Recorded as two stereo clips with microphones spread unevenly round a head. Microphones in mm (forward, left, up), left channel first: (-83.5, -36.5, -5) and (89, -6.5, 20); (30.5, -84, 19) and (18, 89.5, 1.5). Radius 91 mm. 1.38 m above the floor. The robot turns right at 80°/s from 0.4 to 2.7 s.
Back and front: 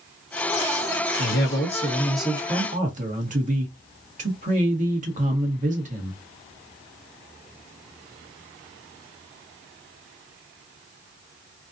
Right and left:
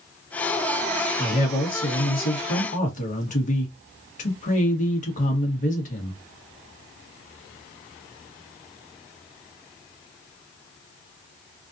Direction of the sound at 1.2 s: 160° right.